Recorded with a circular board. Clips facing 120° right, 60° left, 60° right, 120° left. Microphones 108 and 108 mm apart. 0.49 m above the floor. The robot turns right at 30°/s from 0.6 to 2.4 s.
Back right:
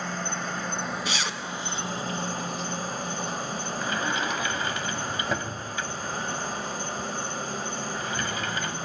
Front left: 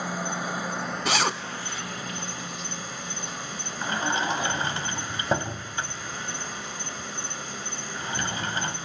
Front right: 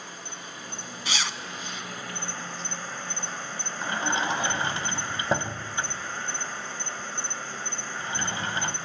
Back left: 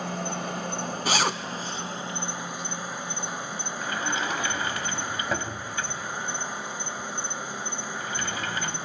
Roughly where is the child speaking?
I don't hear a child speaking.